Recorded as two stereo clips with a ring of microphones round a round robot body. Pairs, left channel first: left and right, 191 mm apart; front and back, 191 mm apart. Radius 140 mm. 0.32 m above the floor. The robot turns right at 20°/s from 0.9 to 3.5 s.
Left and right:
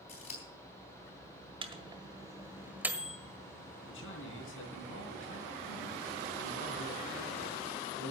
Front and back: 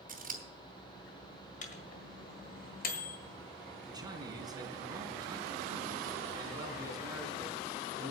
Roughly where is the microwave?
Ahead right.